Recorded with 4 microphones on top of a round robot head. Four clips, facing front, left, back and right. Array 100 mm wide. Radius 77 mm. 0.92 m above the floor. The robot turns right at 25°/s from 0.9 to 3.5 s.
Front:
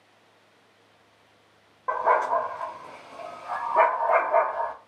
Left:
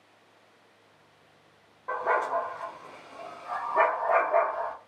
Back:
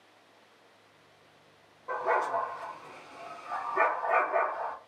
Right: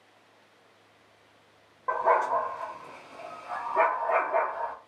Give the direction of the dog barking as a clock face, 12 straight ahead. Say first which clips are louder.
Right 3 dB, front 6 dB; 1 o'clock.